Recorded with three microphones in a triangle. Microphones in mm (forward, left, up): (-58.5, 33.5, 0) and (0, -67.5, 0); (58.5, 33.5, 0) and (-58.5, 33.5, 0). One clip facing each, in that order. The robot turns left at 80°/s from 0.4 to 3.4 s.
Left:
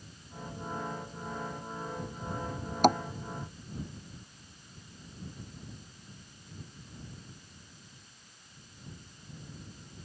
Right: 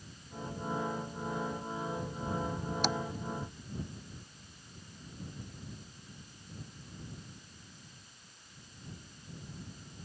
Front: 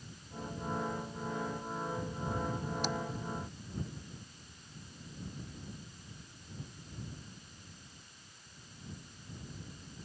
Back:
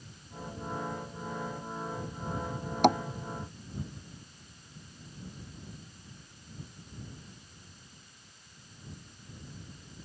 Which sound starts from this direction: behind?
Tapping, at 2.8 s.